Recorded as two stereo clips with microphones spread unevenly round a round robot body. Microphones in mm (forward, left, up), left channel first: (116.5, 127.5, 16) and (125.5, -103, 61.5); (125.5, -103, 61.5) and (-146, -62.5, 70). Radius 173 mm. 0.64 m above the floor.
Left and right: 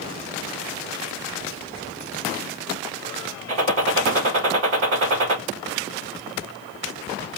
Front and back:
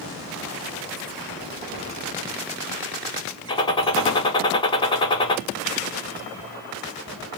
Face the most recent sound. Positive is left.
turn(degrees=-80)